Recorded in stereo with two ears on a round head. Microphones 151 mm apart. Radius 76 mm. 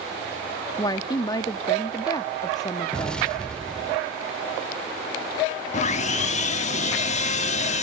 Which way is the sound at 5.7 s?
45° left (ahead or behind).